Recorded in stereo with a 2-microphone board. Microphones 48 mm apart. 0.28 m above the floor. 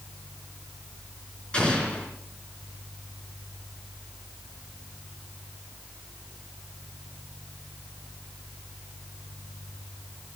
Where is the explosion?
20° left (ahead or behind), 4 m.